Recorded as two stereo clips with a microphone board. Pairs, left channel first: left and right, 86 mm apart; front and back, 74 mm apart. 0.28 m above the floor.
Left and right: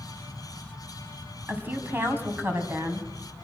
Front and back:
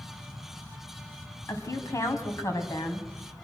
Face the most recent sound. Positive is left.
turn(degrees=-30)